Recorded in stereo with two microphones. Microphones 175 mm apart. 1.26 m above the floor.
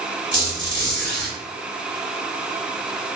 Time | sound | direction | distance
0.3 | a squeak | 80° right | 1.9 m